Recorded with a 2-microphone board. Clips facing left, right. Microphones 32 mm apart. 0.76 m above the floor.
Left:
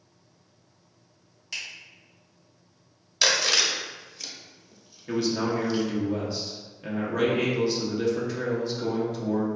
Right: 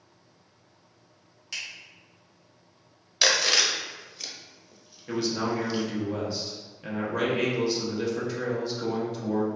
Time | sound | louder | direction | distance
1.5 | a finger snap | left 1 dB | 5° right (ahead or behind) | 1.2 m
3.2 | chewing | even | 5° right (ahead or behind) | 0.5 m
5.1 | a man speaking | left 2 dB | centre (ahead or behind) | 0.7 m